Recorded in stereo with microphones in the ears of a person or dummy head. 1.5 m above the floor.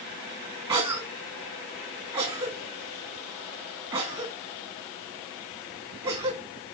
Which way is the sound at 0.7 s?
30° right (ahead or behind).